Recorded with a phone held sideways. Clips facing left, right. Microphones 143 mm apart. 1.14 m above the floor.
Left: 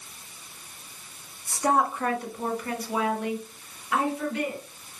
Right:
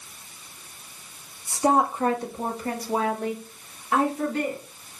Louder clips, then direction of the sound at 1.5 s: Right 3 dB; 20° right (ahead or behind).